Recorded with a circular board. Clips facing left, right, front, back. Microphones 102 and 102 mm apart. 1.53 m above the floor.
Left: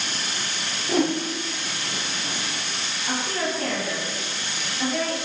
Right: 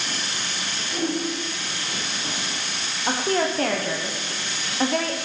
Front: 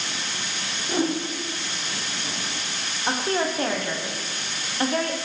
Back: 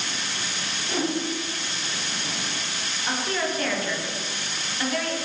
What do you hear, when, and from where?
0.9 s a whoosh: 75° left, 0.8 m
3.1 s a woman speaking: 60° right, 0.8 m